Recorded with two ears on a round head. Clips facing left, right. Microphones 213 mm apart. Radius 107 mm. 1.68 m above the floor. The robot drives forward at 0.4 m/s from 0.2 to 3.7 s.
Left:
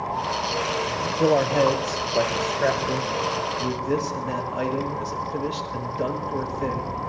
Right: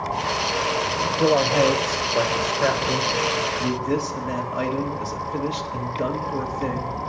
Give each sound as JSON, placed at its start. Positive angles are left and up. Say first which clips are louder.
{"t": 1.1, "sound": "a man speaking", "louder": "even", "side_deg": 0, "distance_m": 0.9}